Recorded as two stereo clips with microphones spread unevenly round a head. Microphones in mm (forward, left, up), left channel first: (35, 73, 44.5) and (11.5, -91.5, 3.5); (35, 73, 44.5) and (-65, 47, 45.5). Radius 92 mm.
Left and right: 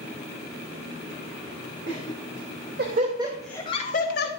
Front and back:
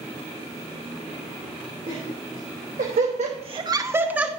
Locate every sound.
1.9 s laughter: 115° right, 2.5 m; by 4.3 s 115° left, 1.6 m